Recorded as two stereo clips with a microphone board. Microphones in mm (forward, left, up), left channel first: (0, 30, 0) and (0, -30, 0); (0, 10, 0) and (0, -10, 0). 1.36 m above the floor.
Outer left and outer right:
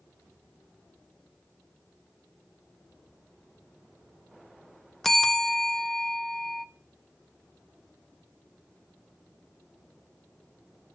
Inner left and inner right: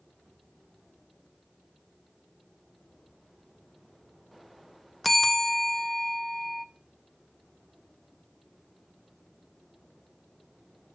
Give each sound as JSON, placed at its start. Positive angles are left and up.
{"t": 5.0, "sound": "a bell", "side_deg": 5, "distance_m": 0.6}